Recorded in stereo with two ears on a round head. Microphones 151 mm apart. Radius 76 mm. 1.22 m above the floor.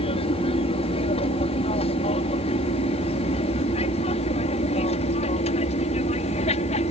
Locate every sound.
0.0 s an aircraft: 35° left (ahead or behind); by 6.9 s 40° left (ahead or behind)